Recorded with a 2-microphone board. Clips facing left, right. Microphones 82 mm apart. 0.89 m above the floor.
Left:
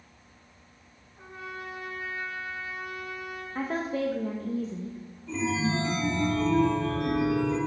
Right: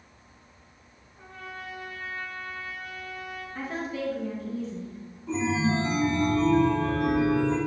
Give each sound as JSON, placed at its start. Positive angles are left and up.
{"t": 1.2, "sound": "a trumpet", "side_deg": 20, "distance_m": 3.0}
{"t": 3.5, "sound": "a woman speaking", "side_deg": 40, "distance_m": 0.8}
{"t": 5.3, "sound": "a chime", "side_deg": -45, "distance_m": 3.0}